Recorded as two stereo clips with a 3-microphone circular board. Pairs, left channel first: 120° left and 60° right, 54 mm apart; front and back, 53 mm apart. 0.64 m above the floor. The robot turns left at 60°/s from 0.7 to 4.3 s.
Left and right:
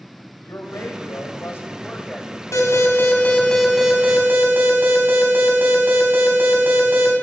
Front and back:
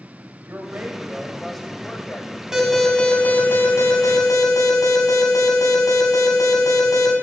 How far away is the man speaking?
About 3 m.